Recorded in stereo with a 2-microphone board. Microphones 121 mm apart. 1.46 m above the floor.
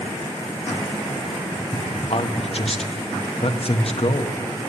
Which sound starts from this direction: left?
A man speaking, at 2.1 s.